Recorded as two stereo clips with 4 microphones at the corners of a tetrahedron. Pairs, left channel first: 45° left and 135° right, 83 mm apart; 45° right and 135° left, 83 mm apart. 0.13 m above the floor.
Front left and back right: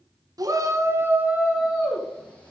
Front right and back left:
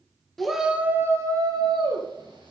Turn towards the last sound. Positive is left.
turn(degrees=125)